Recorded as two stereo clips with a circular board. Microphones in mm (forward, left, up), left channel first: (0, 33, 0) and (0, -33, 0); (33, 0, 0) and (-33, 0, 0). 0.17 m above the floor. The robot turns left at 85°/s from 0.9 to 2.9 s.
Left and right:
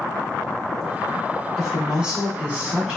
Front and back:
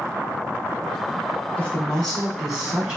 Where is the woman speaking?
15° right, 1.0 m; by 3.0 s 130° right, 1.0 m.